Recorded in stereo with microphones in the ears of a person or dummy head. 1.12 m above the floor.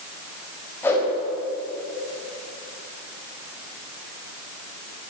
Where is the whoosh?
10° left (ahead or behind), 7 m.